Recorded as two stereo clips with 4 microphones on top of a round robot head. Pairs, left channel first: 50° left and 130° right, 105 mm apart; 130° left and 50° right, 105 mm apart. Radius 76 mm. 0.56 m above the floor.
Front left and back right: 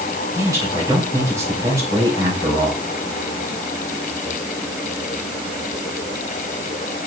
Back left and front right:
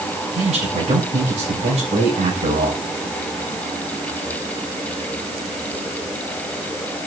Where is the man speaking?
70° right, 3 m.